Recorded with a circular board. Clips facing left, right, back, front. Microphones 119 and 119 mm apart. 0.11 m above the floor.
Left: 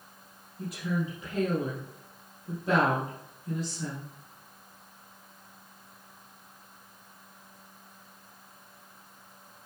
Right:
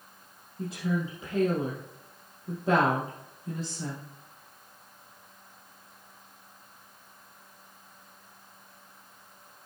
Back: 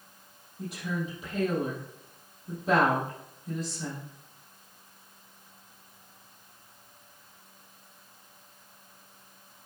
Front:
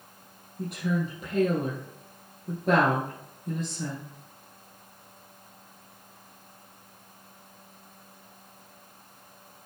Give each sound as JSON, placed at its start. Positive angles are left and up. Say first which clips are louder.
{"t": 0.6, "sound": "a woman speaking", "louder": "right 1 dB, front 5 dB", "azimuth_deg": -30, "distance_m": 3.5}